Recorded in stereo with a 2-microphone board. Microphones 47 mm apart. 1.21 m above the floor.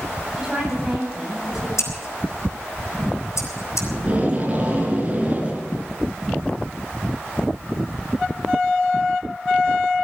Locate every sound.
0.4 s a woman speaking: 10° right (ahead or behind), 8.5 m
1.8 s scissors: 85° left, 3 m
3.9 s tape being pulled: 25° right (ahead or behind), 5 m